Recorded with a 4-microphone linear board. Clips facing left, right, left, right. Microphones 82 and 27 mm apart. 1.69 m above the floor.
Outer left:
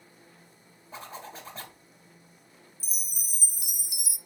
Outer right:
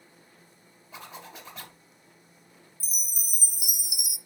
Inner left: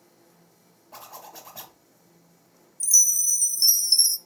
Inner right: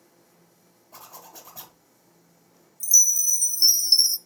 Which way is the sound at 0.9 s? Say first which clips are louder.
Outer left 2 dB, inner left 3 dB; 35° left (ahead or behind).